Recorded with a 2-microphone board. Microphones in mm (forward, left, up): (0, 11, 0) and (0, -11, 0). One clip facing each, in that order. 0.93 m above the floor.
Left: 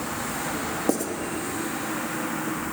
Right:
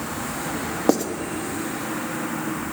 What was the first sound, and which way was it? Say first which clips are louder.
Writing: right 6 dB; 40° right (ahead or behind).